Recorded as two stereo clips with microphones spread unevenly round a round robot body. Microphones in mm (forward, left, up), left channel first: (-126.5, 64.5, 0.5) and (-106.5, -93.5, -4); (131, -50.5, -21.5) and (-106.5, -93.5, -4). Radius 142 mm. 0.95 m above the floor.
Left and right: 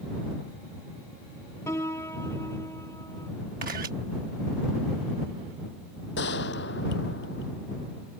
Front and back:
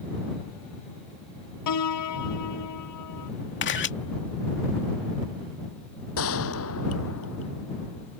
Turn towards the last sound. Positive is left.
turn(degrees=55)